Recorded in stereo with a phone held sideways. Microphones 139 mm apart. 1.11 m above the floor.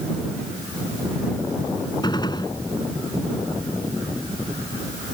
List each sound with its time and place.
2.0 s a gunshot: 30° left (ahead or behind)